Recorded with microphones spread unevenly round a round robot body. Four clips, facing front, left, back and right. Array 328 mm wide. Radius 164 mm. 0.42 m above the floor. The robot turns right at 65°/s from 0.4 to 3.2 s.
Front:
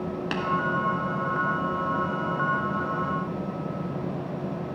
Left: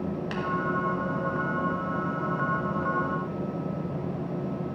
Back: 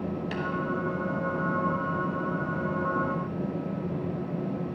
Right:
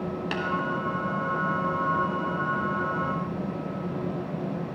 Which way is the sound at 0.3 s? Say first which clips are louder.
Right 2 dB, front 3 dB; 30° right.